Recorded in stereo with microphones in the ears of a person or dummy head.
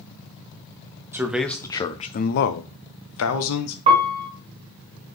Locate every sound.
1.1 s a man speaking: 10° right (ahead or behind), 0.7 m; by 3.8 s 75° left (ahead or behind), 1.1 m
3.9 s a piano: 35° right (ahead or behind), 1.1 m